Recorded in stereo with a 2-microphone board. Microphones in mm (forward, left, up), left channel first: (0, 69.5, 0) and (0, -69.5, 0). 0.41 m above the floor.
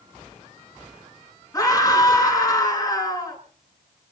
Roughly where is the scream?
Left.